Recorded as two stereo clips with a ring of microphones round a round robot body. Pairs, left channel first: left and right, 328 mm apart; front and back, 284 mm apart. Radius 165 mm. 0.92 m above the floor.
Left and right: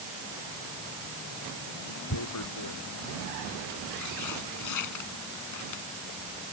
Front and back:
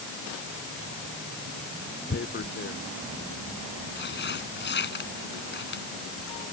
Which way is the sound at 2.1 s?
50° left.